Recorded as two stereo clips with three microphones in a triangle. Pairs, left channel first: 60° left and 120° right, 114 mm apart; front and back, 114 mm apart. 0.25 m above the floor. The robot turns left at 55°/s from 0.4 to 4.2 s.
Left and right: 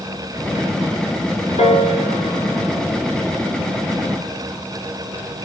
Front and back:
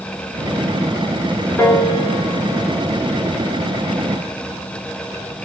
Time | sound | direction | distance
1.6 | a piano | 70° left | 0.6 m